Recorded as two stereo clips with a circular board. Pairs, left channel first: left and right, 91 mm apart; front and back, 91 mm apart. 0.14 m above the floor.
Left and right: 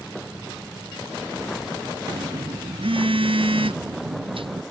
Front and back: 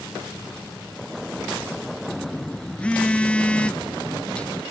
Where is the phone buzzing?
75° right.